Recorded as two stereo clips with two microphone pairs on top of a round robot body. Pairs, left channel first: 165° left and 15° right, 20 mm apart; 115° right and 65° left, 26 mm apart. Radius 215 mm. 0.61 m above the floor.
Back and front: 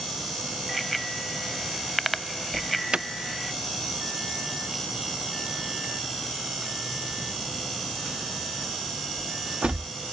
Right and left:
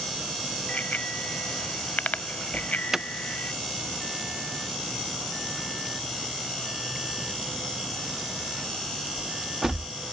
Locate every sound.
0.7 s a bicycle bell: 105° right
2.5 s an alarm: 5° right